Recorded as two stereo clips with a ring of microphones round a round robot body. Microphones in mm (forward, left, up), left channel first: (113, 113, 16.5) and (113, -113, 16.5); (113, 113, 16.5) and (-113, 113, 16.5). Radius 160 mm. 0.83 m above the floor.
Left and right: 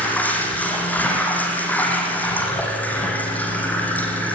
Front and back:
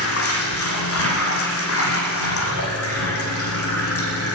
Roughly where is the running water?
Ahead.